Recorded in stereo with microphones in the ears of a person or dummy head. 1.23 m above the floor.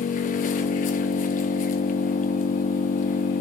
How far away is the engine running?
About 1.2 m.